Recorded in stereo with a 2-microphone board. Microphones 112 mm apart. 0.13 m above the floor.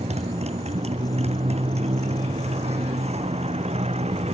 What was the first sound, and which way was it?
A motorcycle, 70° right (ahead or behind).